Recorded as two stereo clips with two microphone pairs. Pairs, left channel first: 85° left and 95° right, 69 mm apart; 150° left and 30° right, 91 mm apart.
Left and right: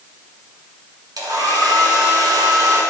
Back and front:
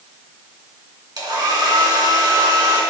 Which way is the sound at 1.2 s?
75° right.